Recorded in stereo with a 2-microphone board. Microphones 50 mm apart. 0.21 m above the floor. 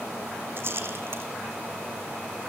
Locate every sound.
0.6 s a rattle: 50° right (ahead or behind), 2.5 m